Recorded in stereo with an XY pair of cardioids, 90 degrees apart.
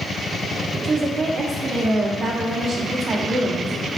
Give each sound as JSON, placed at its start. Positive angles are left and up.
{"t": 0.8, "sound": "a woman speaking", "azimuth_deg": -55, "distance_m": 1.1}